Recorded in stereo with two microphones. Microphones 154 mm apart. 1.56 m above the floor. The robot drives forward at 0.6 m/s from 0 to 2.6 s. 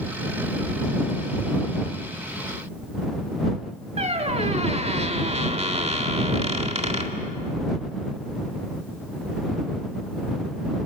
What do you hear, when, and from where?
4.0 s a squeak: 45° right (ahead or behind), 1.9 m